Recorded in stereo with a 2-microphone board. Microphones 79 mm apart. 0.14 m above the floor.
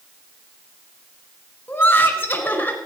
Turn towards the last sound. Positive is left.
turn(degrees=25)  # may be behind; listen again after turning